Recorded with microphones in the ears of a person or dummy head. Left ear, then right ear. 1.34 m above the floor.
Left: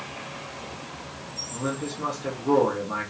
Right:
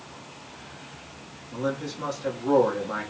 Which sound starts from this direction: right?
A man speaking, at 1.5 s.